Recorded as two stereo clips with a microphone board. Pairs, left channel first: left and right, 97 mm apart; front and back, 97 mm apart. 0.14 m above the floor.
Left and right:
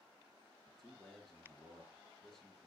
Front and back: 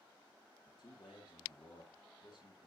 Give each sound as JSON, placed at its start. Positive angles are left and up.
{"t": 0.7, "sound": "a man speaking", "azimuth_deg": 5, "distance_m": 2.5}